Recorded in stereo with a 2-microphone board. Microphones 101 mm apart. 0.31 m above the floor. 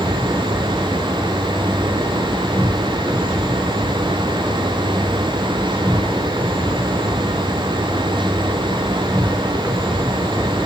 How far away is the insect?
About 3 m.